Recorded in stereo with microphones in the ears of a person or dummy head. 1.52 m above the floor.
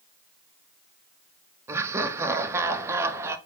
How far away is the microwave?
I don't hear a microwave.